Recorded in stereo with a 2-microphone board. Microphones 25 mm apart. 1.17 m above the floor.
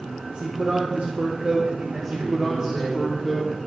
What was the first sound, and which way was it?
A man speaking, 50° right (ahead or behind).